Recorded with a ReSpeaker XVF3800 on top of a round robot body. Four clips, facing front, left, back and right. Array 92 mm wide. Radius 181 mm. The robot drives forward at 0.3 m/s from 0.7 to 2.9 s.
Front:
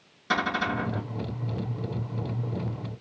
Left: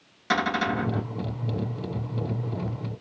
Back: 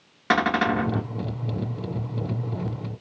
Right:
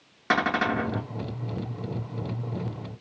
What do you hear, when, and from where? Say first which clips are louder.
0.3 s a cupboard door: right 1 dB, back 5 dB; 145° right, 0.9 m; by 1.1 s 150° right, 1.0 m